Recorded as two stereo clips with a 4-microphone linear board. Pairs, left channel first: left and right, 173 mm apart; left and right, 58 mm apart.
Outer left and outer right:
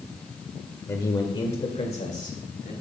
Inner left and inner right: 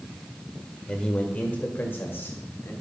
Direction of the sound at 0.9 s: 15° left (ahead or behind).